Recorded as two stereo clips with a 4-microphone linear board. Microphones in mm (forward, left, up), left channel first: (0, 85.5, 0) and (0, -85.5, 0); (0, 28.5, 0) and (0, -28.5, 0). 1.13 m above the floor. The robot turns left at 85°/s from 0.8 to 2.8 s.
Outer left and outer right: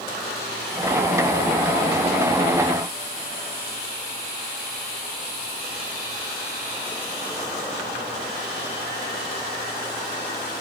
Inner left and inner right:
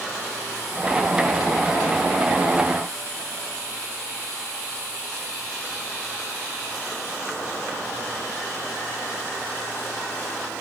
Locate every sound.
Only background noise.